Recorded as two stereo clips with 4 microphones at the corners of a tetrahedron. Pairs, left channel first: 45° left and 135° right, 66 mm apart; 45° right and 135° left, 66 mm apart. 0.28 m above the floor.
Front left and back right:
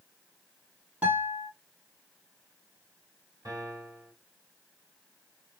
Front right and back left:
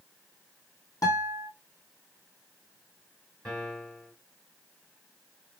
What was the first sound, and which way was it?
A guitar, 70° right.